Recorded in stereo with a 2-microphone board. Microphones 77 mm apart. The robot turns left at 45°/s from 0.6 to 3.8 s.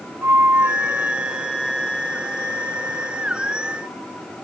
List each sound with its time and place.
0.2 s a flute: 140° right, 2 m; by 3.2 s 105° left, 2 m